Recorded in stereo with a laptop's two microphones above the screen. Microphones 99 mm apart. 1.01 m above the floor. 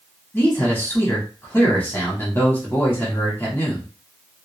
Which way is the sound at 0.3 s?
20° left (ahead or behind).